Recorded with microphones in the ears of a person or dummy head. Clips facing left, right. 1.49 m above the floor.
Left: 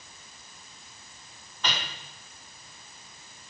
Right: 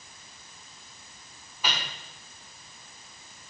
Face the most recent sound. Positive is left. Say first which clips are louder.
# even
turn(degrees=-5)  # may be behind; listen again after turning